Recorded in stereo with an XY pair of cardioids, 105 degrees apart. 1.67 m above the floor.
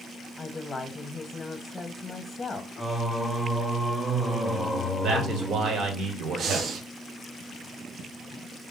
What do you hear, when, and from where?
0.4 s a woman speaking: 25° left, 0.7 m
2.8 s singing: 10° left, 1.0 m
5.0 s a man speaking: 70° right, 1.5 m
6.4 s breathing: 60° right, 1.0 m